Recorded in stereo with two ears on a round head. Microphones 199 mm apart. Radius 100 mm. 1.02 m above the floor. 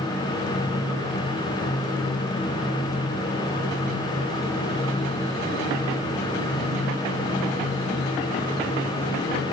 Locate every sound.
Only background noise.